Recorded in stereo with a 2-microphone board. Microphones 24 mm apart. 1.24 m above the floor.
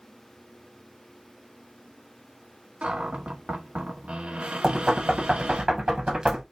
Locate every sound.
2.8 s a cupboard door: 65° right (ahead or behind), 1.1 m
4.6 s knocking: 35° right (ahead or behind), 1.0 m